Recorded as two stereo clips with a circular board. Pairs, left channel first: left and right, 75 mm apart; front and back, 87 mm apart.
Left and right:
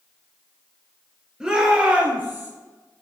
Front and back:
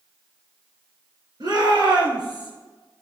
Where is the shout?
170° right, 3 m; by 2.5 s 150° right, 3.5 m.